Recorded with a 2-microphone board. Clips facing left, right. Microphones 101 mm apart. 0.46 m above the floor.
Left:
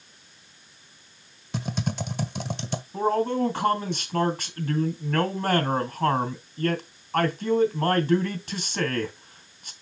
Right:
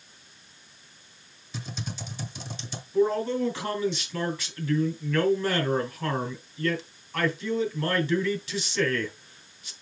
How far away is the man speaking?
About 2.5 m.